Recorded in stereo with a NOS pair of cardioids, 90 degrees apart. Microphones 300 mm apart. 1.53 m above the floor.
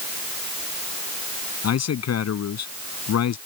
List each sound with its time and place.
1.6 s a man speaking: 55° left; by 3.4 s 60° left